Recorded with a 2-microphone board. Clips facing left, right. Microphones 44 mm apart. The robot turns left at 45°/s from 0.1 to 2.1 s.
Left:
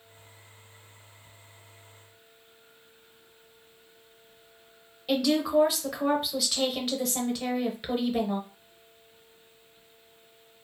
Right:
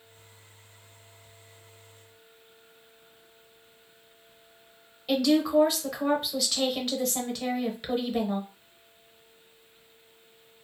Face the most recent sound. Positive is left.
turn(degrees=5)  # may be behind; listen again after turning